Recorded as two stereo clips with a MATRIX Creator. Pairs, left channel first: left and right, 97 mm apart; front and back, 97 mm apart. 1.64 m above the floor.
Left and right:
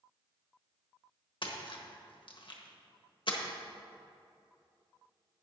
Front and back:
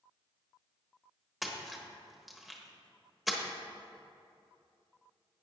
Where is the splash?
95° left, 1.2 m.